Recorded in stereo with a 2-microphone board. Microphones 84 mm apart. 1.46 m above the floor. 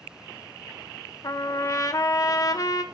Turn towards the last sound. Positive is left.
turn(degrees=40)  # may be behind; listen again after turning